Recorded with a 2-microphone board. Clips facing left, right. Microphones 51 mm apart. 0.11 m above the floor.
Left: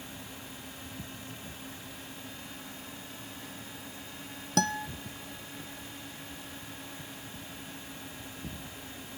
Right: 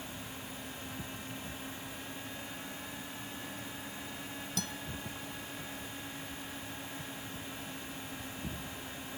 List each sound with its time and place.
4.6 s a guitar: 60° left (ahead or behind)